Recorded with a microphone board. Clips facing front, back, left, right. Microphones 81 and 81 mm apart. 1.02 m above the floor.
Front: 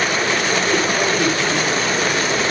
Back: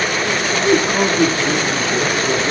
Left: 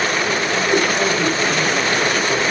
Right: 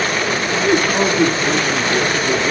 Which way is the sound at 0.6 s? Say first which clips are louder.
Back 3 dB, right 3 dB; 135° right.